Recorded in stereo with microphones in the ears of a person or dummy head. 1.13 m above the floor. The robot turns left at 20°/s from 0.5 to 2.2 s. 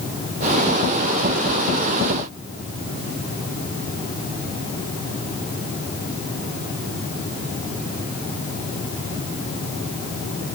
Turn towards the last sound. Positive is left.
No sound to turn to.